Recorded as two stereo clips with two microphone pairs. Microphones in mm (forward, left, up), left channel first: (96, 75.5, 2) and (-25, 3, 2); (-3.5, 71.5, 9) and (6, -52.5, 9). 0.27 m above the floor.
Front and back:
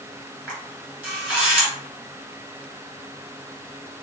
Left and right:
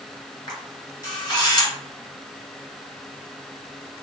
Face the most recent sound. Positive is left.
turn(degrees=135)